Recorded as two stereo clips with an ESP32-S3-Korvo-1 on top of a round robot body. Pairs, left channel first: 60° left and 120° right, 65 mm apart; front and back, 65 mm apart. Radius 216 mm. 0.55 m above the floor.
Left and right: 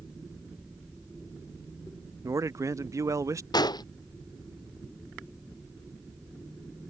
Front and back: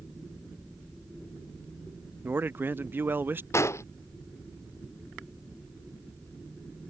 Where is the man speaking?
130° right.